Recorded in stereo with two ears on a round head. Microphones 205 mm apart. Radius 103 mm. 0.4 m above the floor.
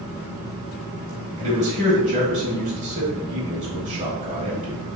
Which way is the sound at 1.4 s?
30° right (ahead or behind).